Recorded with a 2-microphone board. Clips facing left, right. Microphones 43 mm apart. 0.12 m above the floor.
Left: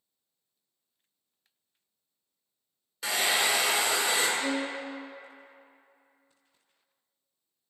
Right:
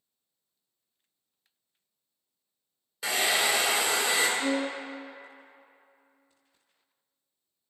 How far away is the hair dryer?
About 0.7 m.